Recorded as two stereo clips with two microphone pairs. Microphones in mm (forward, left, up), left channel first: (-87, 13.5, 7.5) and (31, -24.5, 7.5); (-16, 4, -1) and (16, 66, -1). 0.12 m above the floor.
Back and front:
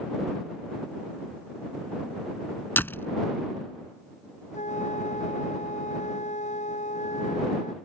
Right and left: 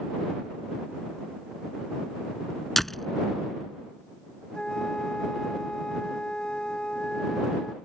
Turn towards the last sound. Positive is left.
turn(degrees=165)